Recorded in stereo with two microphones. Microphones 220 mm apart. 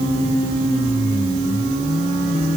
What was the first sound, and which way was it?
Only background noise.